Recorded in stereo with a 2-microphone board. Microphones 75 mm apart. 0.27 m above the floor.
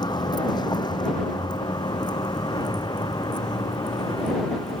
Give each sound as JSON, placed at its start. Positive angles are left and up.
{"t": 0.0, "sound": "a vehicle", "side_deg": 85}